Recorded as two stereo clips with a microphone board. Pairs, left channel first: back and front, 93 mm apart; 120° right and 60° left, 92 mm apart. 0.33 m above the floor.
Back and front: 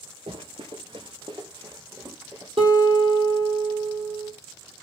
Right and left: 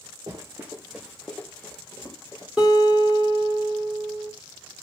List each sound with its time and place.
0.3 s running footsteps: 10° left, 1.0 m; by 2.5 s 65° right, 1.7 m
2.6 s a guitar: 25° right, 1.6 m